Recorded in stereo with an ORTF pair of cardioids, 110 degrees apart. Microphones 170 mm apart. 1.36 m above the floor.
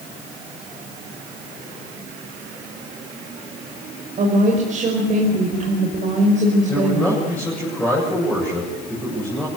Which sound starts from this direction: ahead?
A man speaking, at 6.7 s.